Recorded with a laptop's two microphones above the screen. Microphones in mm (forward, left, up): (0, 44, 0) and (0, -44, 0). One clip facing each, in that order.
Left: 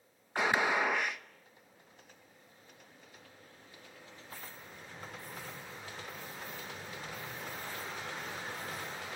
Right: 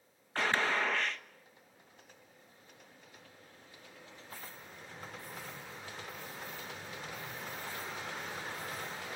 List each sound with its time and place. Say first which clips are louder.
0.3 s a gunshot: left 2 dB; 15° left (ahead or behind), 1.0 m